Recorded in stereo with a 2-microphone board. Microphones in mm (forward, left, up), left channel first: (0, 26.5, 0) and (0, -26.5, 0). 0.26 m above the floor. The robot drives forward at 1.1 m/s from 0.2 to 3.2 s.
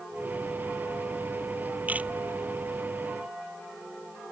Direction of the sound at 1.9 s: 30° right (ahead or behind).